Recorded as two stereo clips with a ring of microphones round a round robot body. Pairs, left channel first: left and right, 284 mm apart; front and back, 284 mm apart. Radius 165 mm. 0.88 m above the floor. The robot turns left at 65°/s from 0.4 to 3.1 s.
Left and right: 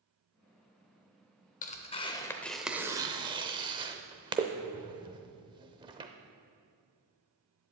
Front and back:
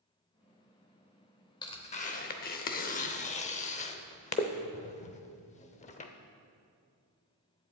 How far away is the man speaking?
I don't hear a man speaking.